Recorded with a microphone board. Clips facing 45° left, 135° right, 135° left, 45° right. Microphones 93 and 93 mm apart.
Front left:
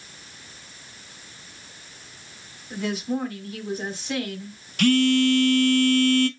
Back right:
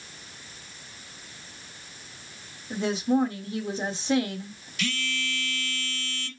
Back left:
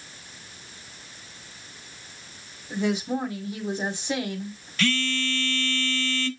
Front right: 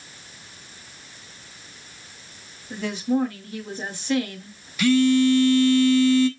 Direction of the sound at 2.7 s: 170° right.